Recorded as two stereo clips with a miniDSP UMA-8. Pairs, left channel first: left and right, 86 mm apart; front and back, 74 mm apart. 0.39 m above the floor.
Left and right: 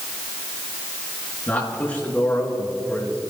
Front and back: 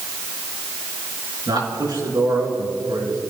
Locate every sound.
1.5 s a man speaking: 160° left, 5 m